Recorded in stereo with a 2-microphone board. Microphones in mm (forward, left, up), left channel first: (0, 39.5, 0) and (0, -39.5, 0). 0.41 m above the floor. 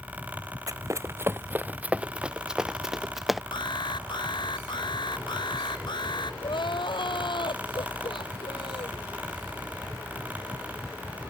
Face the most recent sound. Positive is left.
turn(degrees=80)